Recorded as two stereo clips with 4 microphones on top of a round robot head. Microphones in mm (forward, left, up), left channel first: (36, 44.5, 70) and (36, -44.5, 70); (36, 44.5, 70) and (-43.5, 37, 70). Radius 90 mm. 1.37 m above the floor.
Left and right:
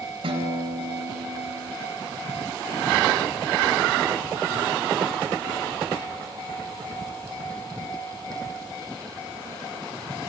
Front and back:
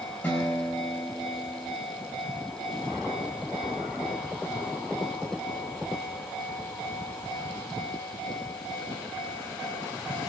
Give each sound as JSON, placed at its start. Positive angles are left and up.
{"t": 0.2, "sound": "a guitar", "azimuth_deg": -70, "distance_m": 4.0}